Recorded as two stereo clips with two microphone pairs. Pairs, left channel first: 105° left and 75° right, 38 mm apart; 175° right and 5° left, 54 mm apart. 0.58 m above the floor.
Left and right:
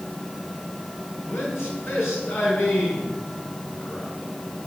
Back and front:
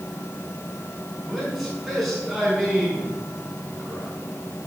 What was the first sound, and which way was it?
A man speaking, 95° left.